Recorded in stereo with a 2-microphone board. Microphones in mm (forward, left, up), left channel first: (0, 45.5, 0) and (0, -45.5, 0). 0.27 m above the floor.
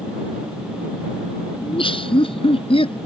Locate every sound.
1.6 s laughter: 70° left (ahead or behind); by 3.0 s 75° left (ahead or behind)